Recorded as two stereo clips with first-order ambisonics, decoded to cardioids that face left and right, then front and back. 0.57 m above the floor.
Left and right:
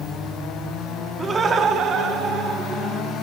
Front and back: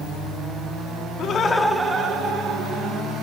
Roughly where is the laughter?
Ahead.